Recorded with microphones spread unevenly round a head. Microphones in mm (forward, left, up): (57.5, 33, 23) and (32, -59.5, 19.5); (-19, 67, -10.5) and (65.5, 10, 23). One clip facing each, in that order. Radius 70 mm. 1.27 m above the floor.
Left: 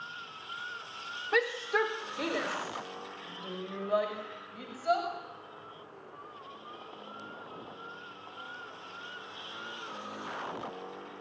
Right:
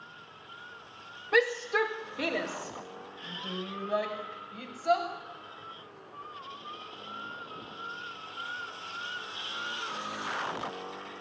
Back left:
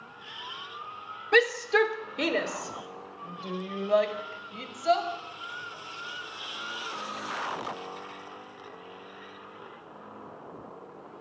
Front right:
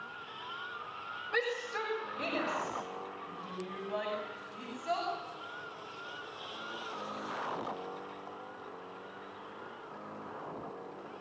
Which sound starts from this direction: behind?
A shout, at 1.3 s.